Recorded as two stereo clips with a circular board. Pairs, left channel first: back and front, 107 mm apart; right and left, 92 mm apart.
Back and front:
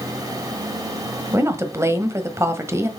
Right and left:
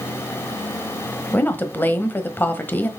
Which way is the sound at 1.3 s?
40° right.